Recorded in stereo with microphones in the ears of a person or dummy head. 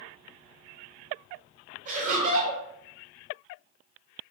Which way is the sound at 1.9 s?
40° right (ahead or behind).